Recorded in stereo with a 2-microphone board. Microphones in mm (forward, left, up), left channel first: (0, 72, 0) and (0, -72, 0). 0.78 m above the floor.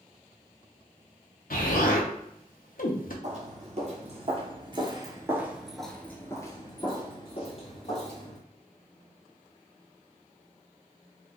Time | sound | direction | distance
1.5 | an explosion | 75° left (ahead or behind) | 0.7 m
3.2 | footsteps | 55° right (ahead or behind) | 1.4 m